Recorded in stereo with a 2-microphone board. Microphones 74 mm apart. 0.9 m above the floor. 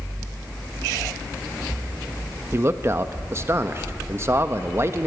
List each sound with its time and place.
2.5 s a man speaking: 35° right (ahead or behind), 0.8 m